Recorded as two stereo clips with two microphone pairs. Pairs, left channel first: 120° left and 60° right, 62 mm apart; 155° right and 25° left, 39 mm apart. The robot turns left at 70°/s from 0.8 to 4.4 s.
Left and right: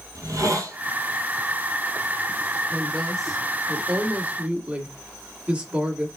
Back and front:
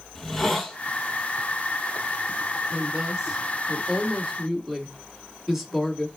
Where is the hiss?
70° right, 0.9 m.